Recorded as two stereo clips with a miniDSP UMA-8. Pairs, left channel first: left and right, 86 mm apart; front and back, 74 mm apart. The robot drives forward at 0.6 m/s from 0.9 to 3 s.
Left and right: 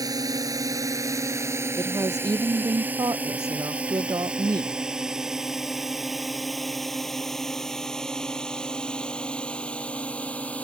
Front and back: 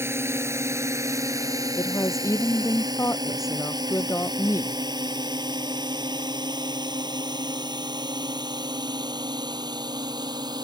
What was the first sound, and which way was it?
A drone, 125° right.